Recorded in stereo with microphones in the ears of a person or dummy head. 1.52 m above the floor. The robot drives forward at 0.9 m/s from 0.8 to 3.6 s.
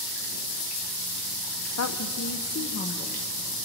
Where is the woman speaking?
80° left, 1.0 m; by 3.3 s 35° left (ahead or behind), 1.8 m.